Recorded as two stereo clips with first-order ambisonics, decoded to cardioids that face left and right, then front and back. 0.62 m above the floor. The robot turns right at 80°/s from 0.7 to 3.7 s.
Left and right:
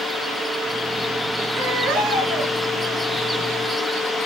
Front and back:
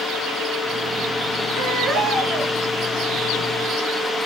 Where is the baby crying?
135° right, 6 m; by 2.5 s 55° right, 6 m.